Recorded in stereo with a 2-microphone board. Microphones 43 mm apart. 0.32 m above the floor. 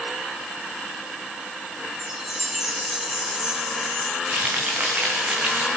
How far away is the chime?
About 2 m.